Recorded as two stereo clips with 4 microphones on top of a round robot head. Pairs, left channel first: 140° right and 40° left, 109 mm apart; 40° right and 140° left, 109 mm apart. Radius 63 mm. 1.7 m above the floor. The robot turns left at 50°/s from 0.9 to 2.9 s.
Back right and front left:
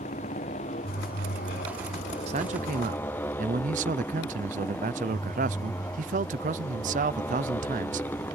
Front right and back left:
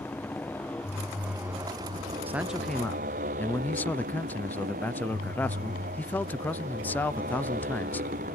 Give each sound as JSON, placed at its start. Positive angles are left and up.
{"t": 0.0, "sound": "a motorcycle", "azimuth_deg": -115}
{"t": 2.3, "sound": "a man speaking", "azimuth_deg": 70}